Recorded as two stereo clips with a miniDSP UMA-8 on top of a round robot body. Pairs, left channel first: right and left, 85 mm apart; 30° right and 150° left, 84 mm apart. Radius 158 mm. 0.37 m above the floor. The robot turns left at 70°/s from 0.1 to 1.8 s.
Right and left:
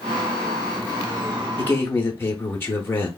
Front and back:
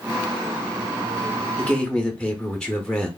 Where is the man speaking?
85° right, 0.8 m; by 3.1 s 100° right, 0.8 m.